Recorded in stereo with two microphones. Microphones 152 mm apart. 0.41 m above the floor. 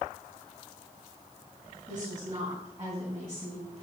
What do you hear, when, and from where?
1.9 s a woman speaking: 30° right (ahead or behind), 3.5 m; by 3.8 s 35° right (ahead or behind), 4.5 m